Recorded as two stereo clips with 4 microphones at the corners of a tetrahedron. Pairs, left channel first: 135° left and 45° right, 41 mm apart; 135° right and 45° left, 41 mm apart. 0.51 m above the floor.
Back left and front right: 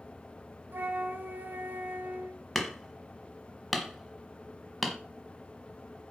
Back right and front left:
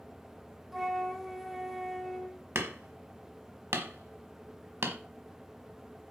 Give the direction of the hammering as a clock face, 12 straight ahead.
10 o'clock.